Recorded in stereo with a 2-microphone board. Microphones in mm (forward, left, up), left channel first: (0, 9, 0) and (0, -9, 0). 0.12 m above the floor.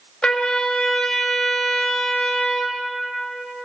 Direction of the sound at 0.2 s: 45° left (ahead or behind).